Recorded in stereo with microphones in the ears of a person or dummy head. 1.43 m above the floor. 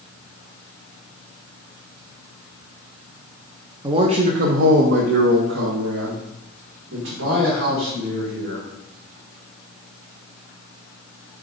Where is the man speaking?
20° right (ahead or behind), 0.5 m; by 8.7 s 80° right, 2.5 m.